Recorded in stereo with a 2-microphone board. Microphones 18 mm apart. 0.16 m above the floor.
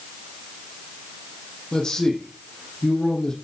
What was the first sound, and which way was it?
A man speaking, 35° left (ahead or behind).